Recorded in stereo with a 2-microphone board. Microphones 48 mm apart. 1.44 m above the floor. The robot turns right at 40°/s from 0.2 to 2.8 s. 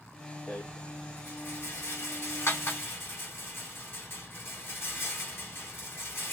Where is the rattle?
30° left (ahead or behind), 2 m; by 6.3 s 55° left (ahead or behind), 2 m.